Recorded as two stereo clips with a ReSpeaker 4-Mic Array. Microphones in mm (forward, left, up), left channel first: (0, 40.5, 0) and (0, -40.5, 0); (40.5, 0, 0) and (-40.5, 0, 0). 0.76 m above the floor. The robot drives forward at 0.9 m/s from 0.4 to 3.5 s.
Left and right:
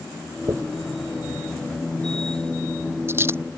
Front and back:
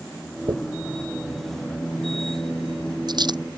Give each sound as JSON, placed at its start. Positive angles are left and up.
{"t": 0.5, "sound": "a dropped coin", "azimuth_deg": -140}